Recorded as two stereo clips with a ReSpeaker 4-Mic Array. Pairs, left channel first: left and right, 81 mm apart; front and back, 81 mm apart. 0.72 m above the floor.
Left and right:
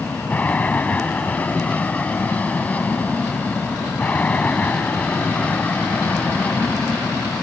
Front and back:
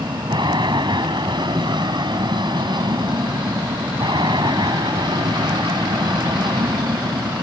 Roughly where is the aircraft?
Behind.